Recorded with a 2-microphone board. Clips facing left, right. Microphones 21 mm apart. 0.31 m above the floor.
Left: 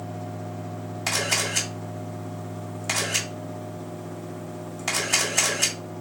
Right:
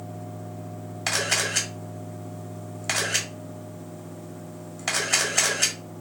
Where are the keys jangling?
No keys jangling in this recording.